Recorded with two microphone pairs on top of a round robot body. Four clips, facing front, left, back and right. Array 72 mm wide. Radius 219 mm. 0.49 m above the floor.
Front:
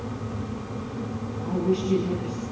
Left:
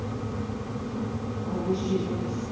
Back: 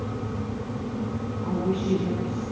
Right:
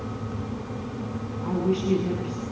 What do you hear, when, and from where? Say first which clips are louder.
1.4 s a woman speaking: right 4 dB, front 2 dB; 110° right, 7 m